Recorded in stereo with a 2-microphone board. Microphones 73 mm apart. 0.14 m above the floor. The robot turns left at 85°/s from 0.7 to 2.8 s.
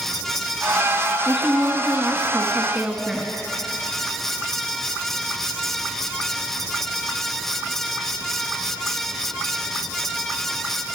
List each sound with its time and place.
1.2 s a woman speaking: centre (ahead or behind), 1.1 m; by 3.3 s 15° right (ahead or behind), 1.1 m